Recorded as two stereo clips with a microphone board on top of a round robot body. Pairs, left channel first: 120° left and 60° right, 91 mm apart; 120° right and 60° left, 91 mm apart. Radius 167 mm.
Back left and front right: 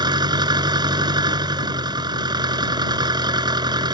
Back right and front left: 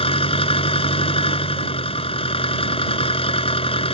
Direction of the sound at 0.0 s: 105° right.